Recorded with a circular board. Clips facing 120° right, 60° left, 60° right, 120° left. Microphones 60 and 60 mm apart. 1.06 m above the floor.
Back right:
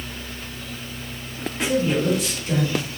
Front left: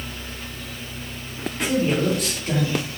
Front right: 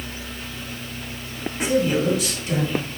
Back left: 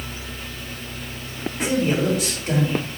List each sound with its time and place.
1.6 s a man speaking: 100° left, 2 m